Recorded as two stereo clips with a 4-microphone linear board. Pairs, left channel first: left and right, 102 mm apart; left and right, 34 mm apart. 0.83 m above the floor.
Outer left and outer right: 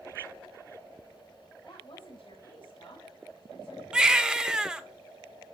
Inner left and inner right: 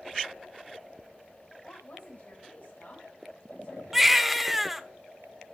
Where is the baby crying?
10° right (ahead or behind), 1.0 m.